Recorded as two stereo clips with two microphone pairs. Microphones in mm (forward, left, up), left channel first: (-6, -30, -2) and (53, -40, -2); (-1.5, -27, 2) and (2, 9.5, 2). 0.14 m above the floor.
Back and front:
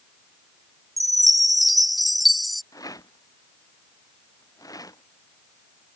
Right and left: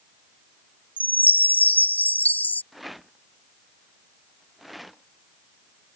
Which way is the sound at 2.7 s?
175° left.